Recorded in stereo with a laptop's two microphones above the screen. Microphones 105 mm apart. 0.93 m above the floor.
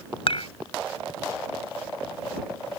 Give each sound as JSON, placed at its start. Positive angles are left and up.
{"t": 0.3, "sound": "dishes clattering", "side_deg": 65}